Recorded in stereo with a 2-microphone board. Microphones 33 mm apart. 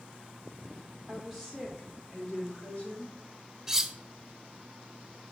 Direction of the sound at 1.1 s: Centre (ahead or behind).